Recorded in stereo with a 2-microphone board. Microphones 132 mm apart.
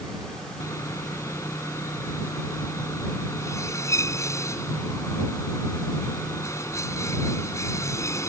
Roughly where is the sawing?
Left.